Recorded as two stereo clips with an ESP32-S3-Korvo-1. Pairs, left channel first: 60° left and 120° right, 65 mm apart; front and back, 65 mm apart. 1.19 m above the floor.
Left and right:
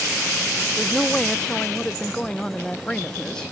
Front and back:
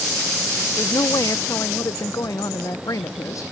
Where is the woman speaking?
15° right.